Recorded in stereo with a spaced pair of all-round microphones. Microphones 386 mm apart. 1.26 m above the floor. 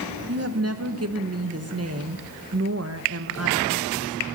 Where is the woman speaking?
40° right (ahead or behind), 1.2 m.